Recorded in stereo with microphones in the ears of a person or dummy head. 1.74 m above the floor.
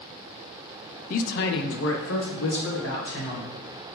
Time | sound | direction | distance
1.1 | a man speaking | 50° left (ahead or behind) | 0.7 m